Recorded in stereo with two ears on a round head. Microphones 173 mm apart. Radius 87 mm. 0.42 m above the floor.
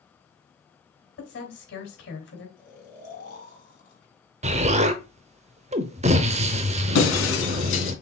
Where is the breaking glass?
80° left, 2.5 m.